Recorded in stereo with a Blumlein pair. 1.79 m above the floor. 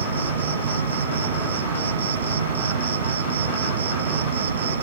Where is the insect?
65° right.